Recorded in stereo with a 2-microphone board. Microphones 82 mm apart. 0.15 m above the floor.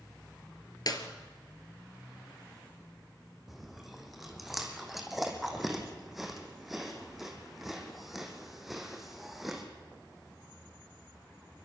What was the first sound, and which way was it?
A clap, 50° left (ahead or behind).